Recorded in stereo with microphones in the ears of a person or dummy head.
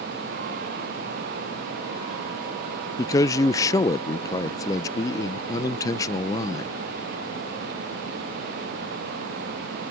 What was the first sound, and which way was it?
A man speaking, 15° left (ahead or behind).